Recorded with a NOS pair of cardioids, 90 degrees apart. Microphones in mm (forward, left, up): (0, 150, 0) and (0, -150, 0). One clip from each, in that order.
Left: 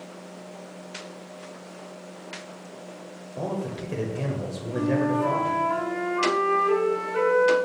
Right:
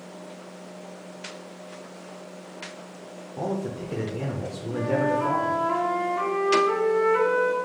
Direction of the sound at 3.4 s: 10° right.